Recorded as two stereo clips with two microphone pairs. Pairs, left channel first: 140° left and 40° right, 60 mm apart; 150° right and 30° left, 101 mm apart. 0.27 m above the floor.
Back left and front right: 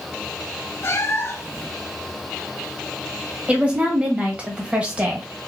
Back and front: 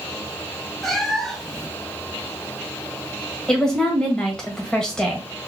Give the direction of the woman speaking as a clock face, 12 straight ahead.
3 o'clock.